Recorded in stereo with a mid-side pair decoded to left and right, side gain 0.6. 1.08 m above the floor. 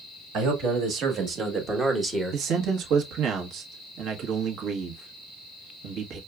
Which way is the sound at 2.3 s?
60° right.